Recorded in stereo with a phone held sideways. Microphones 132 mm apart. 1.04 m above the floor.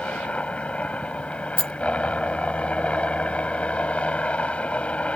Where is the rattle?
40° right (ahead or behind).